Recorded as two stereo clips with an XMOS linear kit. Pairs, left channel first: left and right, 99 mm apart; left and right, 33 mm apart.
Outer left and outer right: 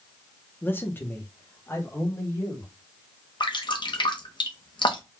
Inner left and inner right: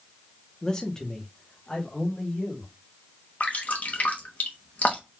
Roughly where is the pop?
No pop in this recording.